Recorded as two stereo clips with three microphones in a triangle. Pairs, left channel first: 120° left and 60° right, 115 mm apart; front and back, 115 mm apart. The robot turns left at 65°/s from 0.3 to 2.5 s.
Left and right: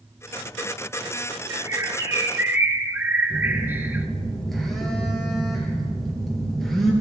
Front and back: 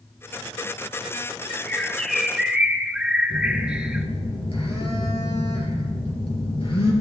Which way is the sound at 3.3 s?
30° left.